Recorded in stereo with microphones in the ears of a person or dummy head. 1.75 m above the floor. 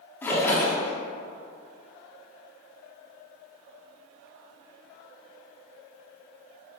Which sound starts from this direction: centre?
A splash, at 0.2 s.